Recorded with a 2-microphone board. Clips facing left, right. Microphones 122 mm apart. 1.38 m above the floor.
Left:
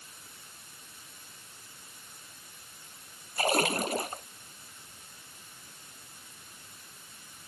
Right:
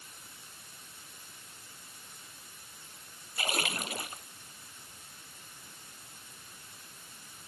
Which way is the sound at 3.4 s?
45° left (ahead or behind).